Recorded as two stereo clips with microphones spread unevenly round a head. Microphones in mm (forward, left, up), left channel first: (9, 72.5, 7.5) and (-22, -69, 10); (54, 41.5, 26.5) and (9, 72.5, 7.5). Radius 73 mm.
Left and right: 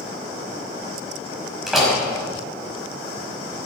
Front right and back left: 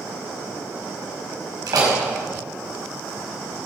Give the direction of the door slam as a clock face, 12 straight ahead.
6 o'clock.